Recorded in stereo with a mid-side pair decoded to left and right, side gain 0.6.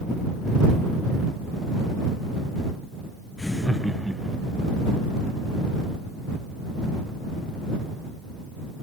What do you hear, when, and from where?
3.4 s laughter: 15° left; by 4.6 s 15° right